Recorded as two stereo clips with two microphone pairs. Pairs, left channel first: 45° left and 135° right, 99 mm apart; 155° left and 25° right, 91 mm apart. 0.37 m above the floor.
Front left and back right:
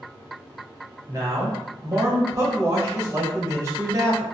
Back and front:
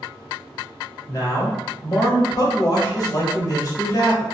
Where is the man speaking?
175° left, 1.3 m.